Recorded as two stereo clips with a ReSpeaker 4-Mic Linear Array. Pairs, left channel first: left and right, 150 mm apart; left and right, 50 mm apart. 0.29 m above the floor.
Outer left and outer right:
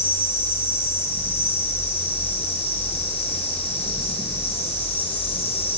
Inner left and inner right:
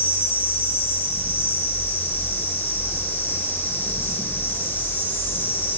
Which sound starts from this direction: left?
An insect, at 0.0 s.